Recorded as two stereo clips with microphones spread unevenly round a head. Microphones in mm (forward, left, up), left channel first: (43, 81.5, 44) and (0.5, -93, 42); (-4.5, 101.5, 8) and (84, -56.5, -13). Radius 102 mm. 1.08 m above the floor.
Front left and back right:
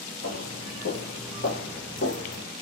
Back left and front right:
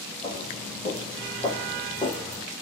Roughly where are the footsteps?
Ahead left.